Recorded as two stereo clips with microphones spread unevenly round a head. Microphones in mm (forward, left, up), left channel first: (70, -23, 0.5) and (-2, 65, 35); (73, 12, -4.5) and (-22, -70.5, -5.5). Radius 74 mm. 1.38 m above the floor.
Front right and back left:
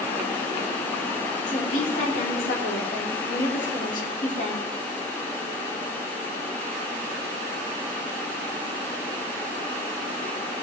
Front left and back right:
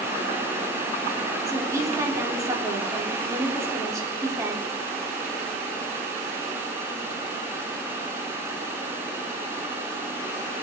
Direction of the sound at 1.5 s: 75° right.